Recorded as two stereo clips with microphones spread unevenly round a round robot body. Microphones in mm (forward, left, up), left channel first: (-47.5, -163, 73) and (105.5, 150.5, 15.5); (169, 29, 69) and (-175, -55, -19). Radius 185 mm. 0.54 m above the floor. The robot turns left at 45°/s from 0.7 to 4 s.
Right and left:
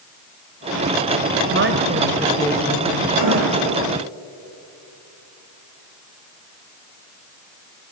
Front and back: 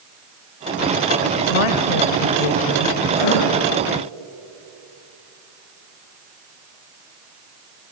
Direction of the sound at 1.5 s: 15° left.